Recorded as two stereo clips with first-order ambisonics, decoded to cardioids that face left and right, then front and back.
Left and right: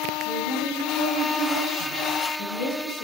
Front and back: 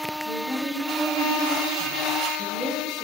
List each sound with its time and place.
0.2 s a woman speaking: 75° left, 4 m